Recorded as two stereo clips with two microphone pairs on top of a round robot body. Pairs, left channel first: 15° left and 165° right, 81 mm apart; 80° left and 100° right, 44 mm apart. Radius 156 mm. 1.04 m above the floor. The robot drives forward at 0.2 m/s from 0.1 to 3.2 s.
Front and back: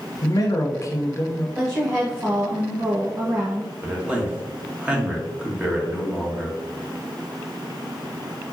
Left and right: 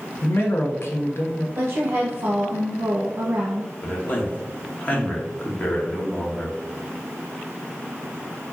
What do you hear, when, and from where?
0.2 s a man speaking: 55° left, 0.8 m; by 1.4 s 75° left, 0.7 m
1.6 s a woman speaking: 105° right, 1.0 m; by 3.7 s 125° right, 1.1 m
3.8 s a man speaking: 125° left, 1.2 m